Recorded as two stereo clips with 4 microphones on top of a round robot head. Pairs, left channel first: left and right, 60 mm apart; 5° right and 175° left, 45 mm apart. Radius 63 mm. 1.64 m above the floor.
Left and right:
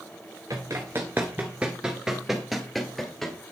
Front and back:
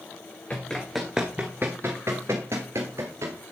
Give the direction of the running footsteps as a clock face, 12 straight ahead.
2 o'clock.